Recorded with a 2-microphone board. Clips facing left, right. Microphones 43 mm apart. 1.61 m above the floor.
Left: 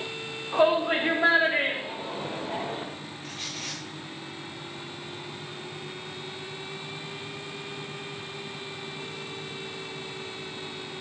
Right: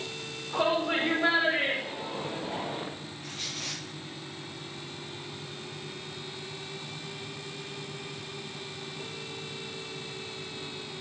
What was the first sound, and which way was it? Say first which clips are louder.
A shout: left 5 dB; 75° left (ahead or behind).